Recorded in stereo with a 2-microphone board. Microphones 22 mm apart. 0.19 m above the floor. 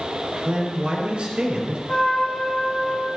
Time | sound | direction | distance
0.5 | a man speaking | 60° right (ahead or behind) | 4.5 m
1.9 | a trumpet | 55° left (ahead or behind) | 6 m